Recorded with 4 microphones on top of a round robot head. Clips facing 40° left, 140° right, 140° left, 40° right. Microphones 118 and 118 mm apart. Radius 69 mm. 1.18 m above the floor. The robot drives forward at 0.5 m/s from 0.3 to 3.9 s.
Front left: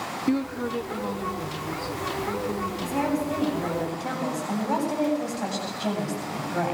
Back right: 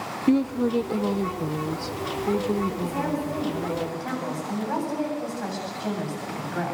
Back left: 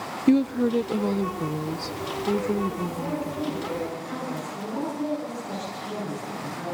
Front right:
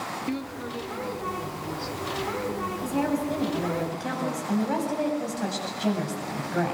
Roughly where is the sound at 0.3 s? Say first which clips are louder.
Back right 5 dB, back left 16 dB; behind left.